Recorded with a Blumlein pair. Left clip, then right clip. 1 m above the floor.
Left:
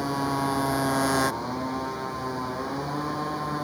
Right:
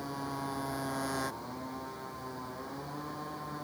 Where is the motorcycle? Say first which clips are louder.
Left 11 dB; 60° left.